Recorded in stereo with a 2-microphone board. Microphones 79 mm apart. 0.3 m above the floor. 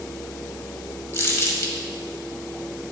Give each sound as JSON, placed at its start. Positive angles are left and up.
{"t": 1.1, "sound": "crumpling", "side_deg": 30, "distance_m": 1.0}